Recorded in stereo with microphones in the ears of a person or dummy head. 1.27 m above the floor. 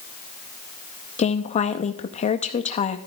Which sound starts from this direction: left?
A woman speaking, at 1.2 s.